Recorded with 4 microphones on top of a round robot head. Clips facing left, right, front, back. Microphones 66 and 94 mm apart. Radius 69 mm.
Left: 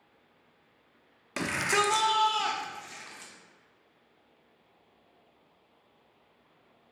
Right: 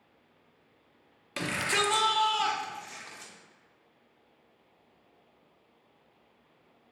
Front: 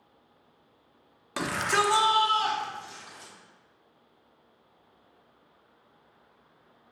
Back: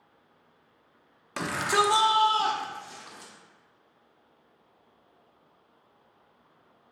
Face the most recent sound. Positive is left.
turn(degrees=-175)